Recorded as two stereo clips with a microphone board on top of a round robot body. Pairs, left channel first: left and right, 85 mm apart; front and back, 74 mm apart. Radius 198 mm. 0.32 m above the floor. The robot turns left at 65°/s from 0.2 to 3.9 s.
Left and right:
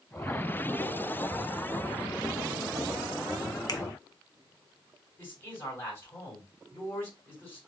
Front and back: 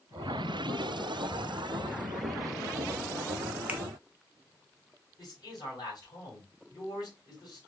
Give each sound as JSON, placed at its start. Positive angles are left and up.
{"t": 3.7, "sound": "a finger snap", "azimuth_deg": 115, "distance_m": 0.8}
{"t": 5.2, "sound": "a man speaking", "azimuth_deg": 25, "distance_m": 3.0}